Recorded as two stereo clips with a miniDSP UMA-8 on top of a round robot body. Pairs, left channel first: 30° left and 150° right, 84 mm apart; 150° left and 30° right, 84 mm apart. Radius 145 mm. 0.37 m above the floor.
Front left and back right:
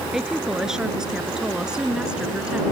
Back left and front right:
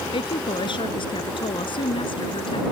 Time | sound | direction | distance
0.1 | a woman speaking | 125° left | ?